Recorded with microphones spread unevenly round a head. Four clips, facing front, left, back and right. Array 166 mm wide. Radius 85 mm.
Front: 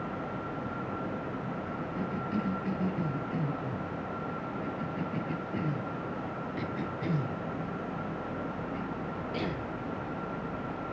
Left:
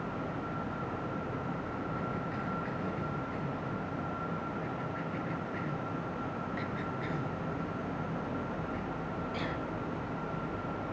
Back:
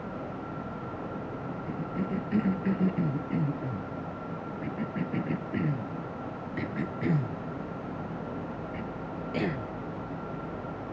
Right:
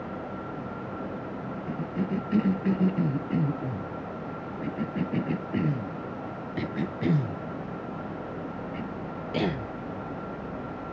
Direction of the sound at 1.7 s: 115° right.